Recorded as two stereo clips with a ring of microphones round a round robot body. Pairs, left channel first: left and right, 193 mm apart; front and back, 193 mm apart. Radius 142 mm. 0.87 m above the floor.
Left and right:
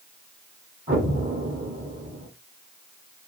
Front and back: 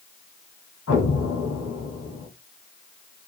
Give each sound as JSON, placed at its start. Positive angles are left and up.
{"t": 0.9, "sound": "an explosion", "azimuth_deg": -20, "distance_m": 1.5}